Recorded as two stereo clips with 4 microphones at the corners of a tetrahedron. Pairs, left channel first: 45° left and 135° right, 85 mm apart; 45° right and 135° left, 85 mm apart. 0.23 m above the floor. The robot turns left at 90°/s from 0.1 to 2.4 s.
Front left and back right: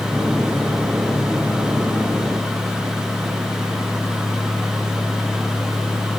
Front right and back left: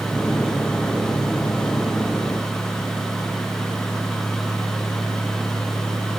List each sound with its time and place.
Only background noise.